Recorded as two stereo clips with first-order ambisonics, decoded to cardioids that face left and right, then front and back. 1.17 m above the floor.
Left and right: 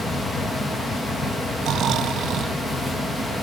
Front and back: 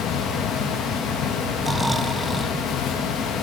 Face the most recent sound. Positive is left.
turn(degrees=-100)